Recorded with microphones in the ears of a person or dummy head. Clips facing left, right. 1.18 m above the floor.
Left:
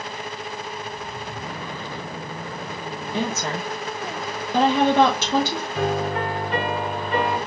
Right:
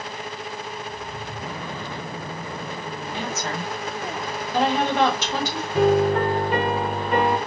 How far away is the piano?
About 3 m.